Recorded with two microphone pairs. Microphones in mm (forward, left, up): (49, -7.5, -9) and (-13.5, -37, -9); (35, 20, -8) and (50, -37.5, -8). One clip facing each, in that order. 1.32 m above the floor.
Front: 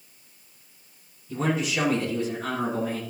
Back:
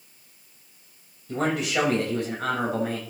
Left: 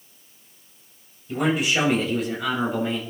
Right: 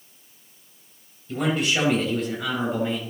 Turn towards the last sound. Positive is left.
turn(degrees=-165)